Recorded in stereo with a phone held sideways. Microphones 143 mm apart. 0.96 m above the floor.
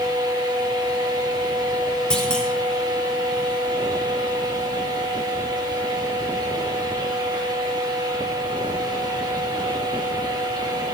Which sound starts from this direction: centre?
A clunk, at 2.1 s.